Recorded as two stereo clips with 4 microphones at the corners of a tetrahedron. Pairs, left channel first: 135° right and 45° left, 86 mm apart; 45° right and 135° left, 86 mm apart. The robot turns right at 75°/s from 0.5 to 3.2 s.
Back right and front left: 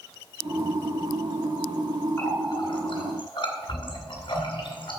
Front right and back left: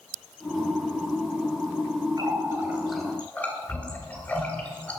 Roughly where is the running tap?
Behind.